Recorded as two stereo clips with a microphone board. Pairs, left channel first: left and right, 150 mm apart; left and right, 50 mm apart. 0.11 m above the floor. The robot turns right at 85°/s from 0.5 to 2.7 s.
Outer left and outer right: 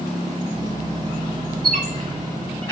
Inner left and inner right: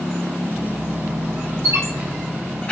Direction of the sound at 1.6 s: 70° right (ahead or behind).